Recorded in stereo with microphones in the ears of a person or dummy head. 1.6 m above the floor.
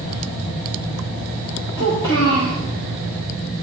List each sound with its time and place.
1.8 s a child speaking: 15° left (ahead or behind), 1.6 m